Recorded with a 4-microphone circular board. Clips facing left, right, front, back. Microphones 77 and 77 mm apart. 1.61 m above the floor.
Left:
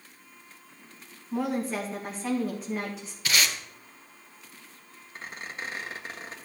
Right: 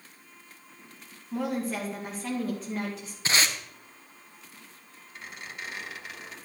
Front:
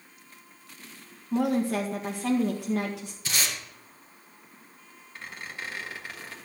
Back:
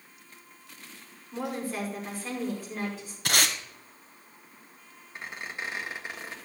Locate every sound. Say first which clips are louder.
1.3 s a woman speaking: left 1 dB, front 8 dB; straight ahead, 1.6 m
3.2 s tape being pulled: right 1 dB, back 5 dB; 150° right, 1.1 m
5.2 s a squeak: left 3 dB, back 2 dB; 120° left, 1.4 m